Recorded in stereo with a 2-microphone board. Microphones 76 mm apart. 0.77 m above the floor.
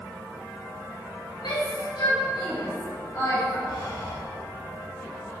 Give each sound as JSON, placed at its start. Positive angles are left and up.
{"t": 1.4, "sound": "a shout", "side_deg": 75, "distance_m": 3.5}
{"t": 3.7, "sound": "breathing", "side_deg": 75, "distance_m": 4.5}